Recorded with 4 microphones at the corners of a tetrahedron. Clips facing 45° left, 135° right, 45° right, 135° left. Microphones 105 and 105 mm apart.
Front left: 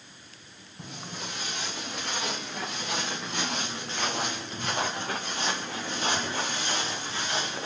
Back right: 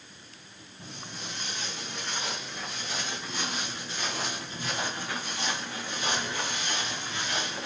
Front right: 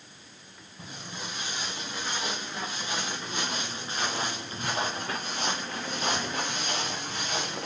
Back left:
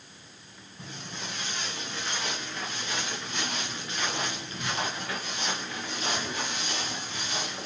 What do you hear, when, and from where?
0.8 s footsteps: 30° left, 5 m; by 7.7 s 15° right, 3.5 m